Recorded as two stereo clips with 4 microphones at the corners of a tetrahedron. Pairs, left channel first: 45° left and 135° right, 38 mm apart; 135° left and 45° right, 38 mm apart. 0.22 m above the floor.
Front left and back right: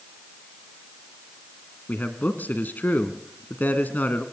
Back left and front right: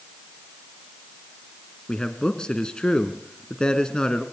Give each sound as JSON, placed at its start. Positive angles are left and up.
{"t": 1.9, "sound": "a man speaking", "azimuth_deg": 70, "distance_m": 1.8}